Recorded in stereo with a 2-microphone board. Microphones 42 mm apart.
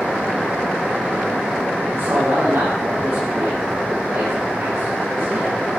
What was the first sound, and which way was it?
A man speaking, 60° right (ahead or behind).